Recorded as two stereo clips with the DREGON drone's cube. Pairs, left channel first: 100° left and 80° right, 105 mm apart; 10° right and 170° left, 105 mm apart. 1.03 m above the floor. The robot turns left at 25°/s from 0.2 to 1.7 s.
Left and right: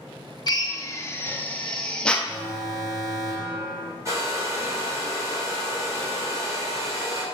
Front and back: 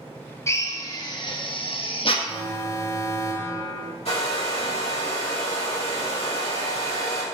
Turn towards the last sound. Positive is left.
turn(degrees=-20)